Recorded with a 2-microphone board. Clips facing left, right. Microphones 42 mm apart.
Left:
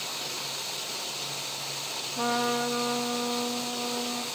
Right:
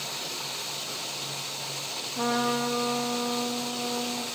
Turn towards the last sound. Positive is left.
turn(degrees=0)  # may be behind; listen again after turning